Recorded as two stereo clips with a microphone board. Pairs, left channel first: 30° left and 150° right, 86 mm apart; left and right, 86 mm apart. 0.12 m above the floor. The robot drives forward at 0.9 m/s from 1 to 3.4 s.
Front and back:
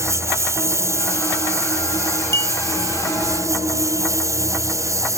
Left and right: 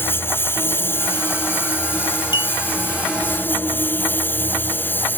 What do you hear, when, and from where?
0.0 s a lawn mower: 155° left
2.3 s a clink: 85° left; by 2.5 s 90° left